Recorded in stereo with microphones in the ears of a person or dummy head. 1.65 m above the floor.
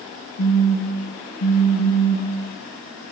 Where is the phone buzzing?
75° left (ahead or behind), 5.5 m.